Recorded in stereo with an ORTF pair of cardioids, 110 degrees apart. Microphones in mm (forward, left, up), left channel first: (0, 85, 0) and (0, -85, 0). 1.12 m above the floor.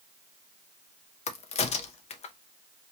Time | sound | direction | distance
1.3 | a crack | 40° left | 0.6 m